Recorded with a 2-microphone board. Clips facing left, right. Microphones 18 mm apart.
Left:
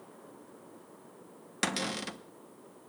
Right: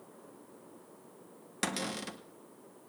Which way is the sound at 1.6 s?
20° left (ahead or behind).